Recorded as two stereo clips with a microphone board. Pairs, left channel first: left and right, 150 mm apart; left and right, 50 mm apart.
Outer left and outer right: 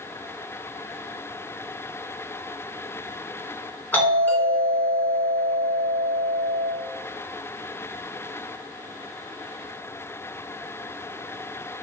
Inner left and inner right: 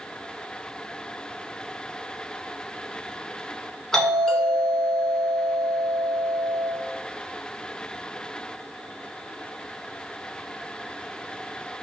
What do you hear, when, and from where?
3.9 s a doorbell: 15° left (ahead or behind), 1.5 m